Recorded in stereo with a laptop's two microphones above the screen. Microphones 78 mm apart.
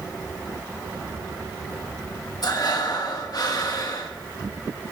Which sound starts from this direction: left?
Breathing, at 2.4 s.